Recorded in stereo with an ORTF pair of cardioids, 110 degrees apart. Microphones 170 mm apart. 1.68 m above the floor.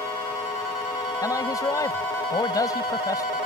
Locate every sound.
1.2 s a man speaking: 20° left